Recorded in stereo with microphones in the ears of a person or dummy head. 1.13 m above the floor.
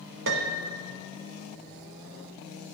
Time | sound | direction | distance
0.3 | a piano | 60° right (ahead or behind) | 0.8 m